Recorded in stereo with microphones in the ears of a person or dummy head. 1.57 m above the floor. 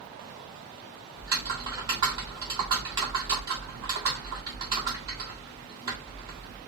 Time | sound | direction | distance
1.2 | typing on a keyboard | 20° right (ahead or behind) | 1.6 m